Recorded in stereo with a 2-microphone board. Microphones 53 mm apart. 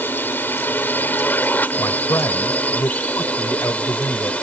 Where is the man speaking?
65° left (ahead or behind).